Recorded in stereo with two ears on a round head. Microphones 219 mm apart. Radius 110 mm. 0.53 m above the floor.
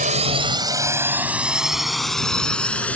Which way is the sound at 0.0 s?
35° right (ahead or behind).